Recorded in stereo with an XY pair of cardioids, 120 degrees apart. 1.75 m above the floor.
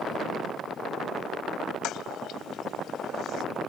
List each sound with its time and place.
1.8 s a toilet flushing: 65° left